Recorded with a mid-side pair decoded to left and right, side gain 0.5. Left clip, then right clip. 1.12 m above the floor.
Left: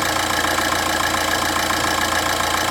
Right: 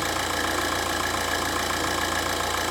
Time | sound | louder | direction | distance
0.0 | an engine running | left 6 dB | 55° left | 1.2 m